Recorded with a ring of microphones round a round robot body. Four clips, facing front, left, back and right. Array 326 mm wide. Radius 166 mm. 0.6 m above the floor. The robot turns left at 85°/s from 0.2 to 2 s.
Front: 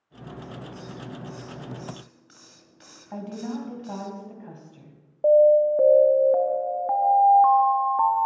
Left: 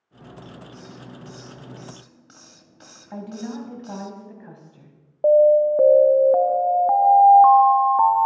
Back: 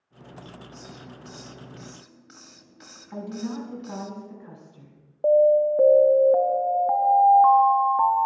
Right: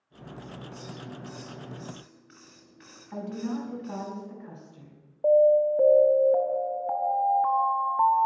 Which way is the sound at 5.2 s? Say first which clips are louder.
Left 5 dB, front 2 dB; 90° left.